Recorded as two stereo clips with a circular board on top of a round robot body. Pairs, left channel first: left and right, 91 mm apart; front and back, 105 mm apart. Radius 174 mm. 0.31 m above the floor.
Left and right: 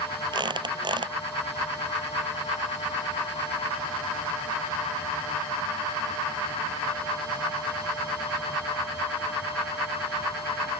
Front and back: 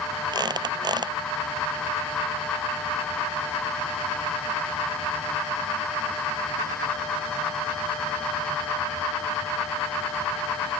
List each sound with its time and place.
0.3 s a squeak: 130° right